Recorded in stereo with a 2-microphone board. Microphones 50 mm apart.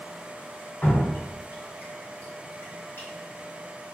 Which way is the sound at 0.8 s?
45° left (ahead or behind).